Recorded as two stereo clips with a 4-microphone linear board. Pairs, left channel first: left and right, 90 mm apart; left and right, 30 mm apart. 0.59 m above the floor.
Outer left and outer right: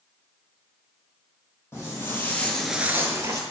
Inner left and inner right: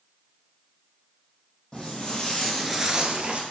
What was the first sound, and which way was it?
Footsteps, 25° left (ahead or behind).